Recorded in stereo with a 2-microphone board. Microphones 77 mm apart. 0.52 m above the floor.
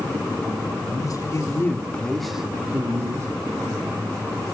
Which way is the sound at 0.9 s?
50° left (ahead or behind).